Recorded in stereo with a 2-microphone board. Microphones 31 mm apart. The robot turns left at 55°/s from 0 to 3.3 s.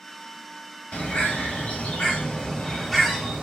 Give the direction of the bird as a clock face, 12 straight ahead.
8 o'clock.